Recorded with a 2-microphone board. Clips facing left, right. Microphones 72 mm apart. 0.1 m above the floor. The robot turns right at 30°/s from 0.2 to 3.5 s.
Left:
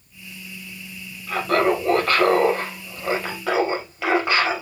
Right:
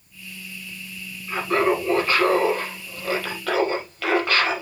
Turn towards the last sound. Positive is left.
turn(degrees=165)